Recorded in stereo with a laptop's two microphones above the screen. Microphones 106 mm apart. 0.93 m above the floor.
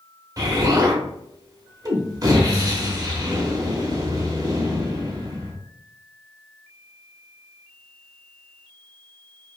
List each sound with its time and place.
0.4 s an explosion: 35° right (ahead or behind), 0.8 m